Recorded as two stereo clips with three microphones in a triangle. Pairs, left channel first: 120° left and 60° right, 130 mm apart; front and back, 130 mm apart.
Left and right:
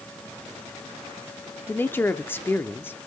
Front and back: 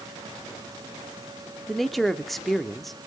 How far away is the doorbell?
I don't hear a doorbell.